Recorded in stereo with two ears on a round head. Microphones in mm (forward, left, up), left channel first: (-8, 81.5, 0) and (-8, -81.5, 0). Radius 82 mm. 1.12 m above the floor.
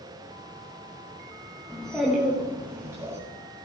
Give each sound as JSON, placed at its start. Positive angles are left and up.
{"t": 1.7, "sound": "a child speaking", "side_deg": 5, "distance_m": 1.0}